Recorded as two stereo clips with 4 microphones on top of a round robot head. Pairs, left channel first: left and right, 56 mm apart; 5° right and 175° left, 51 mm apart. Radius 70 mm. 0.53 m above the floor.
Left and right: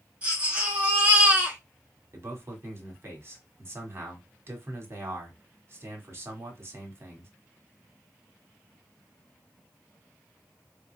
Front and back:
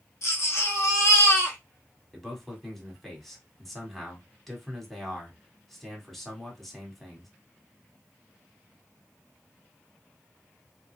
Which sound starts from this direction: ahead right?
A baby crying, at 0.2 s.